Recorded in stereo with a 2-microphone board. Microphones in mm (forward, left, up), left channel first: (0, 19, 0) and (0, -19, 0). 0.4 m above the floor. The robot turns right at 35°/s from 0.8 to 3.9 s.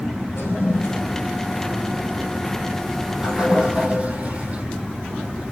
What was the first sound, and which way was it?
A toilet flushing, 75° left (ahead or behind).